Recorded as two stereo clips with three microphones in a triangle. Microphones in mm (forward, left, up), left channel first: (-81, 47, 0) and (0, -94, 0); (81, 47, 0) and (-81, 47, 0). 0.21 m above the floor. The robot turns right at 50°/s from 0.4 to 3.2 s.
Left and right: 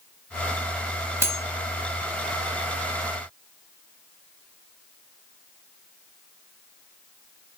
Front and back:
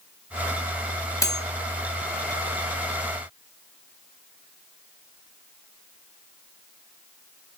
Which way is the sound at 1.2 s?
20° right.